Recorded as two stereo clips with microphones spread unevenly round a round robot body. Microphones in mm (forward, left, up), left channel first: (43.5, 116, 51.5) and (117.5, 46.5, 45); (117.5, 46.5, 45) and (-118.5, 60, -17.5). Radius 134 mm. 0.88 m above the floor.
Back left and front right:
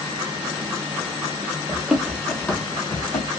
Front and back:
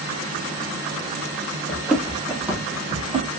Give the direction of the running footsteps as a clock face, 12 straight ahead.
11 o'clock.